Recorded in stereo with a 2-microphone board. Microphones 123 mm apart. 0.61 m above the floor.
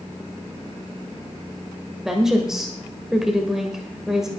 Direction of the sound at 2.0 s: 5° right (ahead or behind).